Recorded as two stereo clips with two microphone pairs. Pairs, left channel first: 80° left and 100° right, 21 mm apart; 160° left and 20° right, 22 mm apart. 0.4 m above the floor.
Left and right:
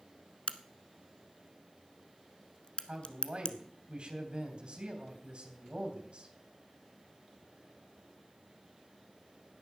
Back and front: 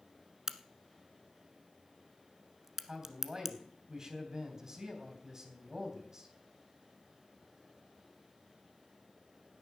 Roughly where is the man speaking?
Right.